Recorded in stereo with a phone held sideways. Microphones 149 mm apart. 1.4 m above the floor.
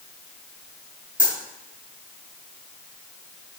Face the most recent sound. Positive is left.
turn(degrees=-70)  # may be behind; listen again after turning